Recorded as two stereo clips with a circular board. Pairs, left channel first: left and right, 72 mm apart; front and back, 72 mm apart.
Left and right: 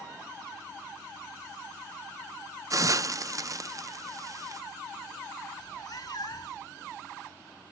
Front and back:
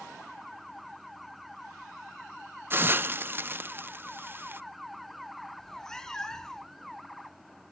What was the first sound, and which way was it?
A hiss, 125° right.